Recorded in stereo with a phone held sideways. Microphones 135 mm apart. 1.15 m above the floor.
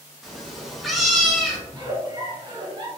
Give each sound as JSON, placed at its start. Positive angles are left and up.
{"t": 0.2, "sound": "a cat meowing", "side_deg": 0, "distance_m": 0.6}
{"t": 1.7, "sound": "a giggle", "side_deg": -35, "distance_m": 0.8}